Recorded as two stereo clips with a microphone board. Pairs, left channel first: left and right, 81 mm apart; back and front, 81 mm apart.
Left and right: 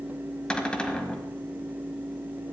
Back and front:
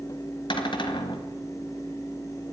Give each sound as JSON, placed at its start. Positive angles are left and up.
{"t": 0.5, "sound": "a cupboard door", "azimuth_deg": 170, "distance_m": 1.6}